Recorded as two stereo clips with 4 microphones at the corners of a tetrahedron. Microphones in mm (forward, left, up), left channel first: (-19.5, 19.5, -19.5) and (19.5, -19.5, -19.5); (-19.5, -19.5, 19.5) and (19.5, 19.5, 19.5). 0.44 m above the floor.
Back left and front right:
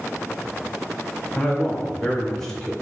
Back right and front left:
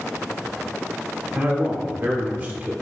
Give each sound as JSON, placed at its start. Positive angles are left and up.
{"t": 1.4, "sound": "a man speaking", "azimuth_deg": 65, "distance_m": 0.9}